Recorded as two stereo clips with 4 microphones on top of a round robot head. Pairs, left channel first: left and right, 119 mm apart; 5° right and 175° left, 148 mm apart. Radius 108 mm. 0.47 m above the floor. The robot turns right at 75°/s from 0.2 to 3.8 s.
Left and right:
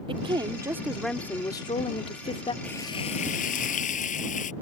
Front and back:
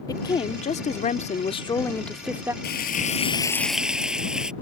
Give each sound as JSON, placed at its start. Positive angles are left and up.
{"t": 0.1, "sound": "a woman speaking", "azimuth_deg": -60}
{"t": 2.6, "sound": "frying", "azimuth_deg": 5}